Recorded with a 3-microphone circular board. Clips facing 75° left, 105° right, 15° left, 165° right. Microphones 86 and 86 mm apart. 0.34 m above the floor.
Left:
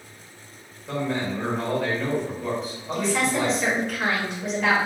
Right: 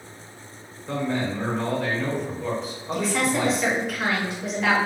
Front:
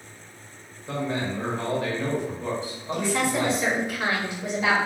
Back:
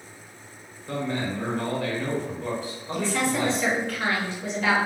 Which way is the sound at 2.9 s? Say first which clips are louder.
Even, front 1 dB; 20° right.